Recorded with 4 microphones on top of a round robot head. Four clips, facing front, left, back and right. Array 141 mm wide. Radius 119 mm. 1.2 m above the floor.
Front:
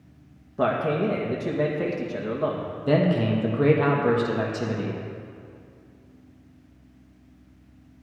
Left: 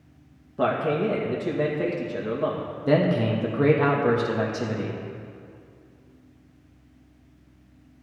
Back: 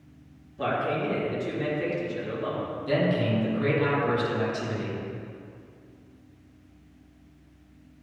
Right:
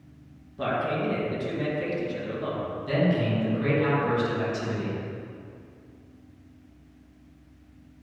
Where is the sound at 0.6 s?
40° left, 2.0 m.